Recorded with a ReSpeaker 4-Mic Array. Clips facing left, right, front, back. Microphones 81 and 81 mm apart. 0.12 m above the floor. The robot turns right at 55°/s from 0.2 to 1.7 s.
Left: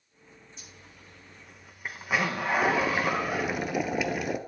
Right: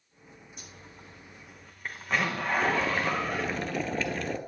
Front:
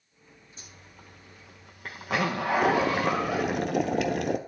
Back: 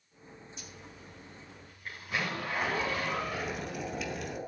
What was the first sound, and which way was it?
A zipper, 55° right.